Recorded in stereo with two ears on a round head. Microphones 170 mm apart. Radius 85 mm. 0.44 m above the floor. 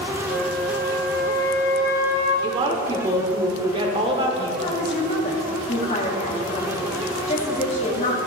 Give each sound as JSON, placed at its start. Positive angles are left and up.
{"t": 0.3, "sound": "a flute", "side_deg": -55, "distance_m": 4.0}
{"t": 2.4, "sound": "a woman speaking", "side_deg": -25, "distance_m": 1.1}
{"t": 4.6, "sound": "a woman speaking", "side_deg": 35, "distance_m": 3.0}